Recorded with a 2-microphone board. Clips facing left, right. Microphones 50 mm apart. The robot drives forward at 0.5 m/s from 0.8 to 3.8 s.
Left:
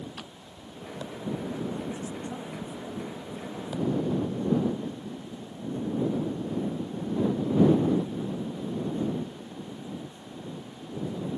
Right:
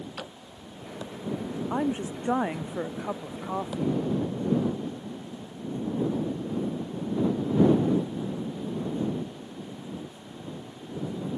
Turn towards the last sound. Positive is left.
turn(degrees=-70)  # may be behind; listen again after turning